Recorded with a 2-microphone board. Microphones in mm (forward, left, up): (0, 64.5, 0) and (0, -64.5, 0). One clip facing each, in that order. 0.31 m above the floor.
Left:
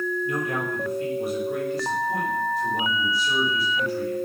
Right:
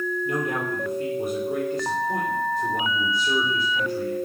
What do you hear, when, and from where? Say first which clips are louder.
0.2 s a man speaking: right 1 dB; 25° right (ahead or behind), 8 m